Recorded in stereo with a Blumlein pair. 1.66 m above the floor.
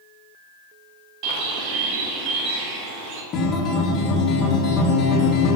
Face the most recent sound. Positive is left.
turn(degrees=25)